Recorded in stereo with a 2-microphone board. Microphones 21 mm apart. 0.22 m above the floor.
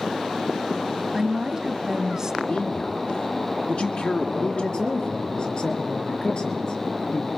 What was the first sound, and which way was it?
A woman speaking, 25° right (ahead or behind).